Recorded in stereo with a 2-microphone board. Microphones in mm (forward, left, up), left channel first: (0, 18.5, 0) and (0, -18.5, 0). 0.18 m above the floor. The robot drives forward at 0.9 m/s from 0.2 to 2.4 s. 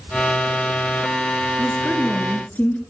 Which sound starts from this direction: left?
A woman speaking, at 1.6 s.